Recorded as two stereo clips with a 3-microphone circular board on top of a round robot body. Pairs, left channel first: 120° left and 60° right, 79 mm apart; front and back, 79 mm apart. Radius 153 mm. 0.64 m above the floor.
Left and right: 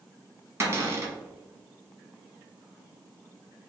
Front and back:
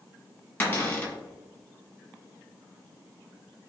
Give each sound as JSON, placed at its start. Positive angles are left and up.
{"t": 0.6, "sound": "a cupboard door", "azimuth_deg": -45, "distance_m": 1.1}